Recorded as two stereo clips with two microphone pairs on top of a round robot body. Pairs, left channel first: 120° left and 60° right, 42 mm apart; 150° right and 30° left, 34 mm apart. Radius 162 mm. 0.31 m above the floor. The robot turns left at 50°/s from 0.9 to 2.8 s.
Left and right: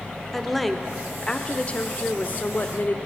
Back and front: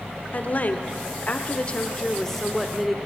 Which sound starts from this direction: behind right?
A woman speaking, at 0.3 s.